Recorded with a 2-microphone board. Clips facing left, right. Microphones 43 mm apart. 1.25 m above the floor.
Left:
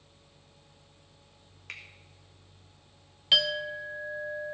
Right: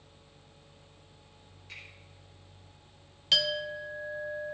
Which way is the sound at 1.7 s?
70° left (ahead or behind).